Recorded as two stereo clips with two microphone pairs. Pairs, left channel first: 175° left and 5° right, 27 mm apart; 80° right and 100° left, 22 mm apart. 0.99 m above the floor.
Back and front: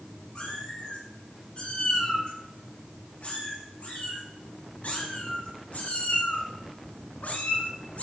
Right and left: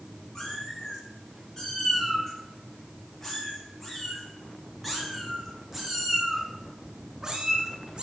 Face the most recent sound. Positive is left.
turn(degrees=150)